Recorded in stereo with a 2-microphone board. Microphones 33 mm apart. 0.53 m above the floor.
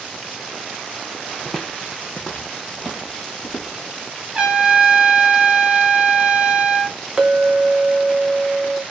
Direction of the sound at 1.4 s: 5° left (ahead or behind).